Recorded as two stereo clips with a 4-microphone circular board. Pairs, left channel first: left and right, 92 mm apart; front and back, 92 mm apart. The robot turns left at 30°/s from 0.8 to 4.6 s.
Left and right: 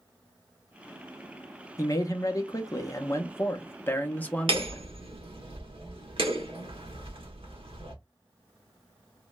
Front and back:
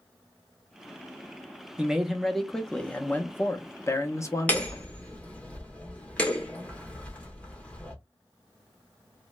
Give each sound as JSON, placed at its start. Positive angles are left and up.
{"t": 1.8, "sound": "a man speaking", "azimuth_deg": 105, "distance_m": 0.7}
{"t": 4.5, "sound": "hammering", "azimuth_deg": -75, "distance_m": 1.0}